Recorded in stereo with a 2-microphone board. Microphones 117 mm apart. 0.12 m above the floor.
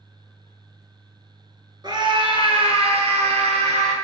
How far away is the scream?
About 1.7 m.